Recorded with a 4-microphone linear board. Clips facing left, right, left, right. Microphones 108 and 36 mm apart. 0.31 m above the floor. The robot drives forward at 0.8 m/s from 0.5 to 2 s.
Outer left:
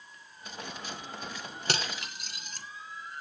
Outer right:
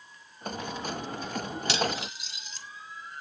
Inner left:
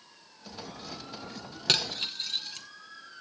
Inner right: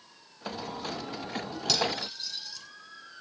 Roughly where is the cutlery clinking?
Left.